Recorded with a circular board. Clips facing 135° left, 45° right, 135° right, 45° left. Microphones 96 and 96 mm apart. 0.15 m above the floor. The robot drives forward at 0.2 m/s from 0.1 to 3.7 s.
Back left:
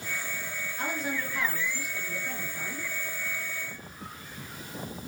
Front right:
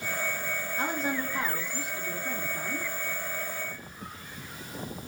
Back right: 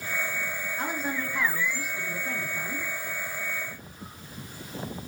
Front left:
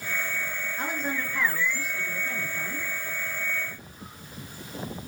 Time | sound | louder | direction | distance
0.8 | a woman speaking | front right 2 dB, even | 55° right | 1.4 m